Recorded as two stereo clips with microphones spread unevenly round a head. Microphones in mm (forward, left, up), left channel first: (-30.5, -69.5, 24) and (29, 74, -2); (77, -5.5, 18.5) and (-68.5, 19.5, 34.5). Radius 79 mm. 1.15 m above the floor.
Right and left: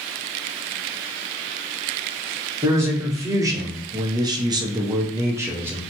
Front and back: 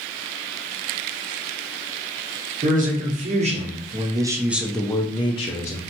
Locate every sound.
2.6 s a man speaking: 135° left, 1.2 m; by 5.8 s straight ahead, 0.7 m